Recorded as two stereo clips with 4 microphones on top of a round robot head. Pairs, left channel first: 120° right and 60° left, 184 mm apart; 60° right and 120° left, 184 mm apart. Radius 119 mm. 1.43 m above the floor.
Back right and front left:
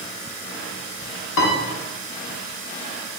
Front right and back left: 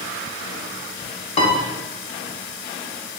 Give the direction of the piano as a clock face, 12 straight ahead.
4 o'clock.